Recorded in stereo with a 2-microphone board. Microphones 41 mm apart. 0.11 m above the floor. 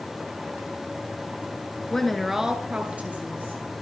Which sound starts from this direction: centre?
A woman speaking, at 1.9 s.